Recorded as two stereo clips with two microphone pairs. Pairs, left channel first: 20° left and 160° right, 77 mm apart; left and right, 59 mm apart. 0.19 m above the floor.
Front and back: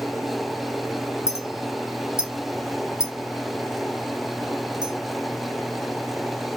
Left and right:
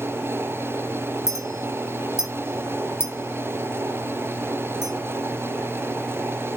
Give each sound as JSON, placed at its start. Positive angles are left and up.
{"t": 1.3, "sound": "a clink", "azimuth_deg": 120, "distance_m": 3.0}